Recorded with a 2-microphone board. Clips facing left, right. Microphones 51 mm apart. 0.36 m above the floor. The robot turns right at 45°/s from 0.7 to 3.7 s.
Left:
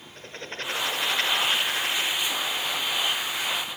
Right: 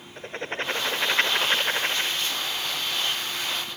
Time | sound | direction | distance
0.2 | writing | 130° right | 0.8 m